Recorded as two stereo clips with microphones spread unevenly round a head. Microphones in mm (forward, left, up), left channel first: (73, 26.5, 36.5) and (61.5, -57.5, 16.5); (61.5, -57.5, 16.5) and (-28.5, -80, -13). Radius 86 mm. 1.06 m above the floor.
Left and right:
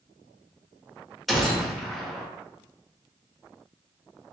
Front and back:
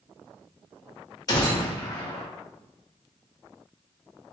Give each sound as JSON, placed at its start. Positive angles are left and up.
{"t": 1.3, "sound": "a gunshot", "azimuth_deg": 0, "distance_m": 1.1}